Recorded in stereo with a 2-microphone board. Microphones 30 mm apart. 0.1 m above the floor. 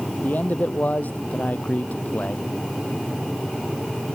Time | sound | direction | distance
0.2 | a man speaking | 60° left (ahead or behind) | ?